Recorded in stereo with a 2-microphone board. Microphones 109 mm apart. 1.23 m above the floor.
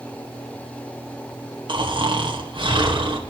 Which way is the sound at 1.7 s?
50° right (ahead or behind).